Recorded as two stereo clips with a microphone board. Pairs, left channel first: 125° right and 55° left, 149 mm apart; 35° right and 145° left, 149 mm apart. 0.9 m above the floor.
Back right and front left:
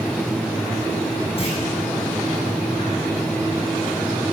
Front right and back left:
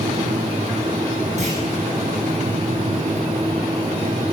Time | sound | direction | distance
1.4 | a clunk | 175° right | 9 m